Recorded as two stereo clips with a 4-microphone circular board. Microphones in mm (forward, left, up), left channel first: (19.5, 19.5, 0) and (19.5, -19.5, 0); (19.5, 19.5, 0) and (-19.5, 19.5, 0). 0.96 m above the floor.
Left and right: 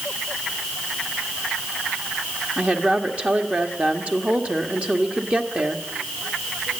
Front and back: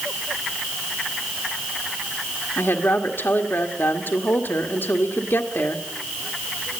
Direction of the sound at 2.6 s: 30° right.